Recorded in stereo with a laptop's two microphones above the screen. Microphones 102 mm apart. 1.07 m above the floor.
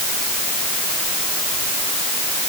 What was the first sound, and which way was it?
Only background noise.